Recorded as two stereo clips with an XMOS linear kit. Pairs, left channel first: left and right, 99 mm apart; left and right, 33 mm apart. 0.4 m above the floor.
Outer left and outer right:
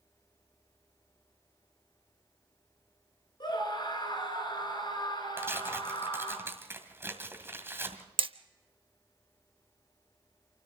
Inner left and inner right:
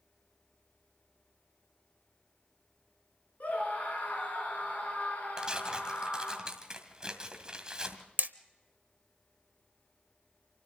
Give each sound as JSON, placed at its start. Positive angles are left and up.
{"t": 3.4, "sound": "a scream", "side_deg": 45, "distance_m": 5.5}
{"t": 5.4, "sound": "tearing paper", "side_deg": -25, "distance_m": 2.0}
{"t": 8.2, "sound": "hammering", "side_deg": -60, "distance_m": 0.7}